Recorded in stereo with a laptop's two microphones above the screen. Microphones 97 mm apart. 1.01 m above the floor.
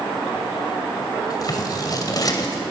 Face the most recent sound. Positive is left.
turn(degrees=40)  # may be behind; listen again after turning